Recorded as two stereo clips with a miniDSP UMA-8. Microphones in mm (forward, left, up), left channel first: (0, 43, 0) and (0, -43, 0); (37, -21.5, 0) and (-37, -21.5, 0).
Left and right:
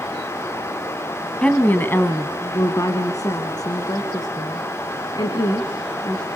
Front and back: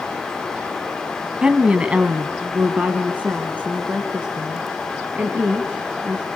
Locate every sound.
1.4 s a woman speaking: 135° left, 1.3 m; by 6.2 s 110° left, 4 m